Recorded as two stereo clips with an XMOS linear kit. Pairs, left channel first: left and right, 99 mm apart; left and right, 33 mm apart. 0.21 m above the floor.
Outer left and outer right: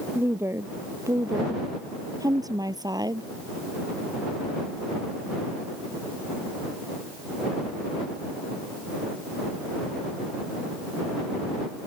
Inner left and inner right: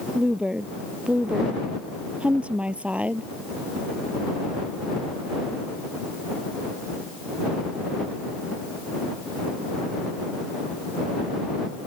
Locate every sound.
0.1 s a woman speaking: 25° right (ahead or behind); by 3.3 s 45° right (ahead or behind)